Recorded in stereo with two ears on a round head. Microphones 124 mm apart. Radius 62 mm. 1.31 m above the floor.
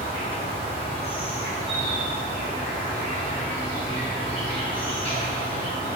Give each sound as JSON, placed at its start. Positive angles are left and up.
{"t": 0.0, "sound": "an insect", "side_deg": 40, "distance_m": 0.9}